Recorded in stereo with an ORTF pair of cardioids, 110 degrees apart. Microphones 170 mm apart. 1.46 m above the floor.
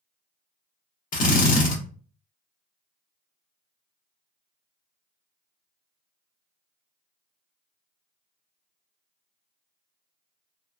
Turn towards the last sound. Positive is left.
turn(degrees=50)